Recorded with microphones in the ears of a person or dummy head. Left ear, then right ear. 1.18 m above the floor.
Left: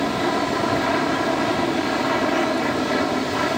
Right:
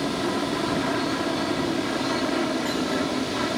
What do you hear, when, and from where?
0.0 s an aircraft: 30° left (ahead or behind)